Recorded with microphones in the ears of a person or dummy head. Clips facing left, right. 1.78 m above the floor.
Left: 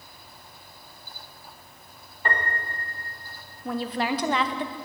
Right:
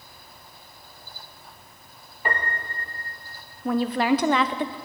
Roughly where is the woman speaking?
Right.